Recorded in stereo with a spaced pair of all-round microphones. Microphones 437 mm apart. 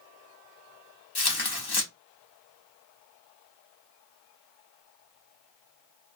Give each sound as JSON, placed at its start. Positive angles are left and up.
{"t": 1.1, "sound": "tearing paper", "side_deg": 60, "distance_m": 0.8}